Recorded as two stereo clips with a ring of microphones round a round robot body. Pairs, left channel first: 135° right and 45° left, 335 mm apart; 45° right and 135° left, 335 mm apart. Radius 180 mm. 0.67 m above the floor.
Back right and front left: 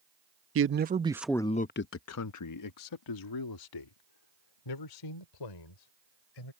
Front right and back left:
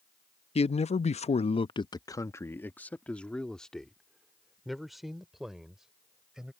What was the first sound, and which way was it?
A man speaking, 20° left.